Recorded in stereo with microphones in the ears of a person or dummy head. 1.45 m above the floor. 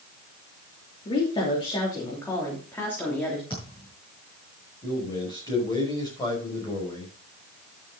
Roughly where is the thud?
Left.